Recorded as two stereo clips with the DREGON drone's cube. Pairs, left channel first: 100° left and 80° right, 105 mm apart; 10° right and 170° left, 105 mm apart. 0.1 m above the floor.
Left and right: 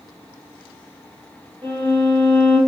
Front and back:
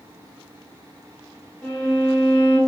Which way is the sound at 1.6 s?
75° right.